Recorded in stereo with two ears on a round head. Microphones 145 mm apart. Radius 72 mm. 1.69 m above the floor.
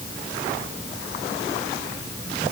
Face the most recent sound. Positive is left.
No sound to turn to.